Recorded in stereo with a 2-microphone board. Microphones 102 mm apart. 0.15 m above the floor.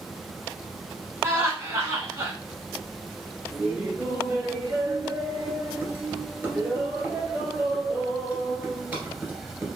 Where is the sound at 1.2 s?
30° right (ahead or behind), 1.5 m.